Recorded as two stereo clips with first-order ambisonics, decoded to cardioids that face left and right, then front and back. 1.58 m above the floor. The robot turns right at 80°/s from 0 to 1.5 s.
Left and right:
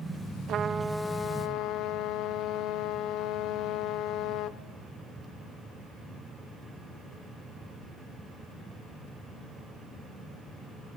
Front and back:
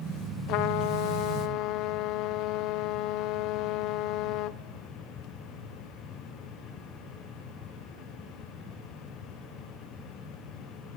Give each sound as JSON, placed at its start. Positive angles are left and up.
{"t": 0.5, "sound": "a trumpet", "azimuth_deg": -40, "distance_m": 0.7}